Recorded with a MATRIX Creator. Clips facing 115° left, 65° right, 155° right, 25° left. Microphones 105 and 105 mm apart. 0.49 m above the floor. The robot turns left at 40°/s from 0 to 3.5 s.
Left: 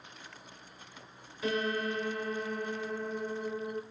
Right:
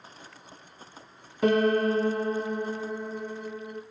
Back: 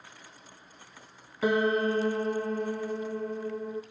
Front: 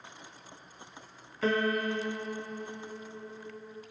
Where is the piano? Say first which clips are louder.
Right 10 dB, back 4 dB; 80° right, 1.0 m; by 3.8 s 165° right, 1.0 m.